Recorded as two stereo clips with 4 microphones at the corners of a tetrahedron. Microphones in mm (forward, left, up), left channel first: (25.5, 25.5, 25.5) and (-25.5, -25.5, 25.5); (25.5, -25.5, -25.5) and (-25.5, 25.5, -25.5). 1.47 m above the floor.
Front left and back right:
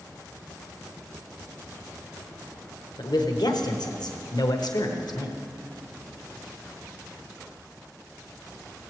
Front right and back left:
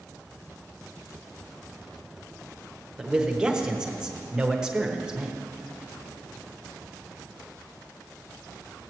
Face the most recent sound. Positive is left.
turn(degrees=55)